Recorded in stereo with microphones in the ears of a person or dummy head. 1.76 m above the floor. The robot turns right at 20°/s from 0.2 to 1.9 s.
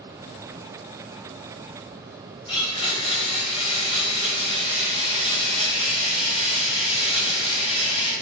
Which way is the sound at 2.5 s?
30° left (ahead or behind).